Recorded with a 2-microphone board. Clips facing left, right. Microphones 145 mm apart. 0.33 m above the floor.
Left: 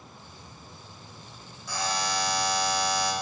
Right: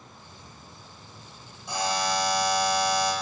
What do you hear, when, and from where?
1.7 s a buzzer: 20° right (ahead or behind), 1.2 m